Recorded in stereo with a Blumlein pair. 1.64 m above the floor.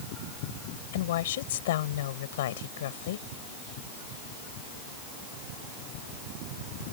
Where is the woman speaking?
55° left.